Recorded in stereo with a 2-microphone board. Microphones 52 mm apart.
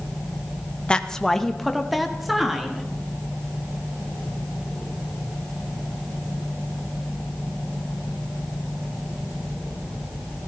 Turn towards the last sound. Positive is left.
turn(degrees=-10)  # may be behind; listen again after turning